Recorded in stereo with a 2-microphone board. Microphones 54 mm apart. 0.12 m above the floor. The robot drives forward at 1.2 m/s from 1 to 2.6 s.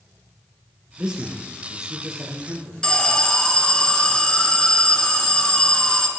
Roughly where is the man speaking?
Centre.